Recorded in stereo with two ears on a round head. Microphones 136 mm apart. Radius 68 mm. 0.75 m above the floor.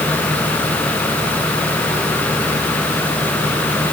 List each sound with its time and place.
Only background noise.